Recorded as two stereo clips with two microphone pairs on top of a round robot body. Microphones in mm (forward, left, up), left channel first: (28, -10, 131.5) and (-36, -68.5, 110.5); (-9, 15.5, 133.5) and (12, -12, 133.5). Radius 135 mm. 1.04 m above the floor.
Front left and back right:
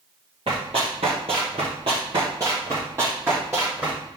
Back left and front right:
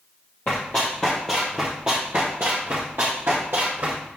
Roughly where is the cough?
No cough in this recording.